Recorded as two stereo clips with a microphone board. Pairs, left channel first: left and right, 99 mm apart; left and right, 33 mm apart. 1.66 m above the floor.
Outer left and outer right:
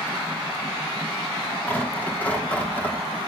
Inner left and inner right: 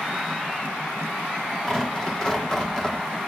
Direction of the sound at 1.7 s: 20° left (ahead or behind).